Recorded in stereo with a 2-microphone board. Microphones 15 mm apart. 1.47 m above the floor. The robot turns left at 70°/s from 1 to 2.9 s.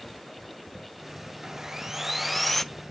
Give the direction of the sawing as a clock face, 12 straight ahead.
4 o'clock.